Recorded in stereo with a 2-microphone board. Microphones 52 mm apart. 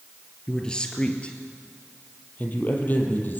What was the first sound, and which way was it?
A man speaking, 15° left (ahead or behind).